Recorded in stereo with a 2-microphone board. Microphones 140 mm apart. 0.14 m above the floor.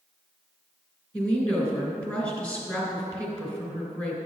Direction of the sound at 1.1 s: 10° left (ahead or behind).